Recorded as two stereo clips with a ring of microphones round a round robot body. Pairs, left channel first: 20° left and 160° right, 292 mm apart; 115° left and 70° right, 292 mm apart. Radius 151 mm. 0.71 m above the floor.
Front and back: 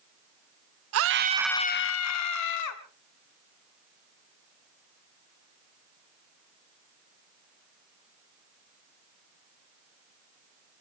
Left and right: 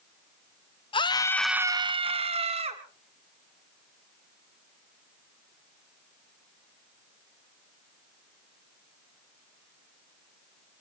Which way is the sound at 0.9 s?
175° right.